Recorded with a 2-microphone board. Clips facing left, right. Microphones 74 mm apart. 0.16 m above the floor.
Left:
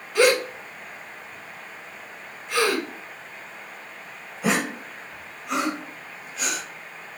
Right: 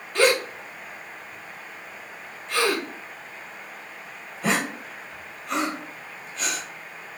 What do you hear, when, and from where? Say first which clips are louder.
0.1 s a gasp: left 2 dB; 5° left (ahead or behind), 1.1 m